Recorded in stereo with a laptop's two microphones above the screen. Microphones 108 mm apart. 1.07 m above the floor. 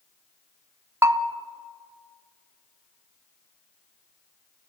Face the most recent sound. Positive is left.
turn(degrees=-25)  # may be behind; listen again after turning